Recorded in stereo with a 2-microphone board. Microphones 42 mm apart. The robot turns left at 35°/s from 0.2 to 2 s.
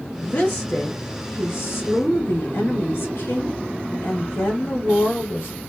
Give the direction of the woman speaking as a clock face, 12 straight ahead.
7 o'clock.